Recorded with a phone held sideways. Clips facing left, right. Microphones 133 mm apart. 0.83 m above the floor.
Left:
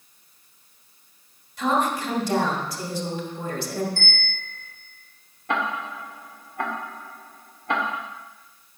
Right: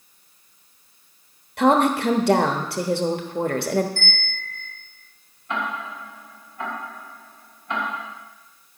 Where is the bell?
30° left (ahead or behind), 4 m.